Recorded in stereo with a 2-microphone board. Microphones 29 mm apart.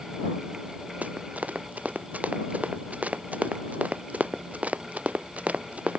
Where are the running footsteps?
65° right (ahead or behind); by 6.0 s 55° right (ahead or behind).